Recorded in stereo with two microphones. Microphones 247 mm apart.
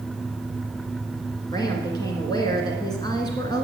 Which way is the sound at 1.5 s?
15° left (ahead or behind).